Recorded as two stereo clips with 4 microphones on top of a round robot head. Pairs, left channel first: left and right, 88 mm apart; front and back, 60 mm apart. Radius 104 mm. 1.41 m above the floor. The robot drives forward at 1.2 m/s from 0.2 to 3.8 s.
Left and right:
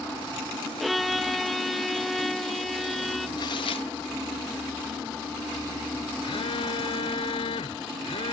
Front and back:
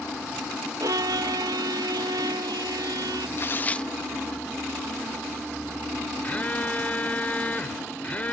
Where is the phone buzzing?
65° left.